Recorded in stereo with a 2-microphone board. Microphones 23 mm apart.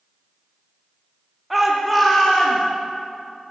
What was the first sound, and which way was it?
A shout, 5° right (ahead or behind).